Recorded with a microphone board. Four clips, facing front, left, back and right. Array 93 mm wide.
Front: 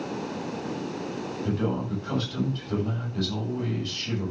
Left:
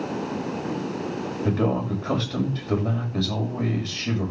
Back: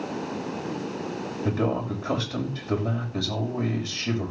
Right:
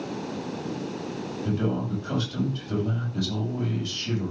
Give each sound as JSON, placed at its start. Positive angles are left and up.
{"t": 1.4, "sound": "a man speaking", "azimuth_deg": 125, "distance_m": 5.5}